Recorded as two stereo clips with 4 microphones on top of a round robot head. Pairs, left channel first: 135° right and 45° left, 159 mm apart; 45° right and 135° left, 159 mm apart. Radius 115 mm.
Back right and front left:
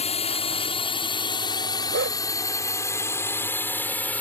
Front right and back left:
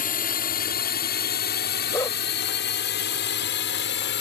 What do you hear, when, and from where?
0.0 s a drone: 80° right; by 4.2 s 55° right
1.9 s a dog barking: 30° left